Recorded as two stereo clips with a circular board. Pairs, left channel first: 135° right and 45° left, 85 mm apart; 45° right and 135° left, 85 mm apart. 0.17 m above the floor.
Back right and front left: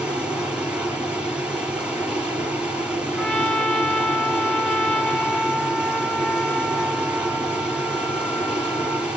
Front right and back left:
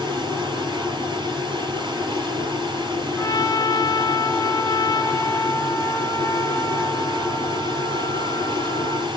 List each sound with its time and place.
0.0 s running water: 120° left, 3.5 m
3.2 s a trumpet: 65° right, 0.8 m